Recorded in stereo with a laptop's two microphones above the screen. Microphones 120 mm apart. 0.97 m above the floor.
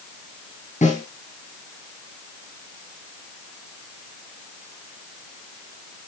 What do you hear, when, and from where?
0.8 s a snare drum: 85° left, 7 m